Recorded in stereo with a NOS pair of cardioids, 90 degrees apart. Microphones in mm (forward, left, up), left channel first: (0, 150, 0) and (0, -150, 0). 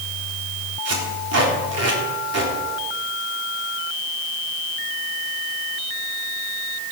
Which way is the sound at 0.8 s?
50° right.